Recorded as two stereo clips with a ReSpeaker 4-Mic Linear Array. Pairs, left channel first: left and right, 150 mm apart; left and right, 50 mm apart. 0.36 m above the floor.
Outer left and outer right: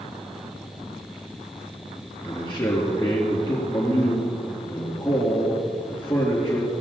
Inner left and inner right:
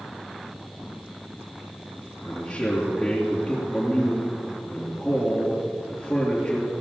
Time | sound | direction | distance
2.2 | a man speaking | 15° left (ahead or behind) | 5 m